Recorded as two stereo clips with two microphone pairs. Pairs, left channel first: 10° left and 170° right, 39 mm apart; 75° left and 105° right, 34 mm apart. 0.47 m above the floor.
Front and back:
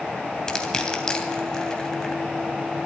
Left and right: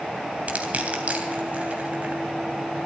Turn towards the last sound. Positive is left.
turn(degrees=-60)